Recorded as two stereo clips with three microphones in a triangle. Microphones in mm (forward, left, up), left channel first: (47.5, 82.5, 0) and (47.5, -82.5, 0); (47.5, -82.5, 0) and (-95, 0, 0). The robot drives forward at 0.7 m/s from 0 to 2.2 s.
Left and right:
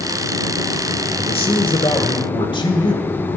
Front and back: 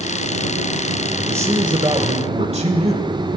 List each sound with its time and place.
1.2 s a man speaking: 80° left, 1.1 m; by 3.1 s 135° left, 1.2 m